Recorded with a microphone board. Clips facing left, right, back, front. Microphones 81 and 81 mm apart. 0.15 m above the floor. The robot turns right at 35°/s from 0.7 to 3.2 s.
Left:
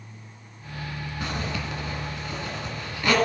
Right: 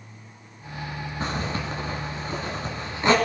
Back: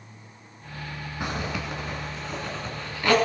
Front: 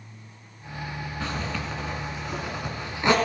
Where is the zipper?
120° right, 1.5 m; by 3.1 s 50° right, 1.5 m.